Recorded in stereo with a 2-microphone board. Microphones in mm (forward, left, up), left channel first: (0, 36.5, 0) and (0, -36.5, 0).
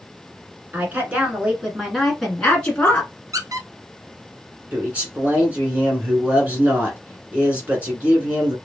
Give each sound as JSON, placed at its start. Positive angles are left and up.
{"t": 0.7, "sound": "a woman speaking", "side_deg": -25, "distance_m": 1.5}
{"t": 3.3, "sound": "a squeak", "side_deg": -55, "distance_m": 0.7}
{"t": 4.7, "sound": "a man speaking", "side_deg": -20, "distance_m": 1.6}